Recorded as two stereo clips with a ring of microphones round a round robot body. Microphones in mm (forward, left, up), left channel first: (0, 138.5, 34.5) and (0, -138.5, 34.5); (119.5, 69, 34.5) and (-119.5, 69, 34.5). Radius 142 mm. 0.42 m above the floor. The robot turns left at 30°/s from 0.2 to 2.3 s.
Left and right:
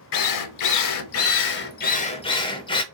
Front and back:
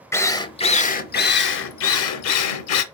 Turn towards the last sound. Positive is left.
turn(degrees=15)